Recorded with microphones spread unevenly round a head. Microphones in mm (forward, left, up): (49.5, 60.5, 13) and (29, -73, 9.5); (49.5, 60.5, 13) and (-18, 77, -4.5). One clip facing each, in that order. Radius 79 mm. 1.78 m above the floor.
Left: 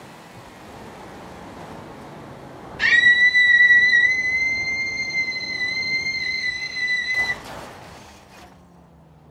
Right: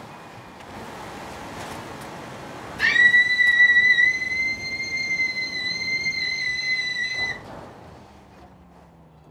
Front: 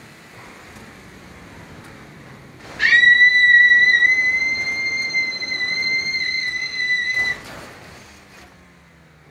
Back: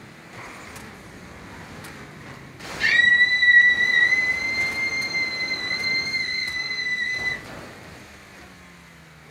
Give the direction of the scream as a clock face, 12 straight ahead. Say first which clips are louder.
Left 2 dB, front 5 dB; 12 o'clock.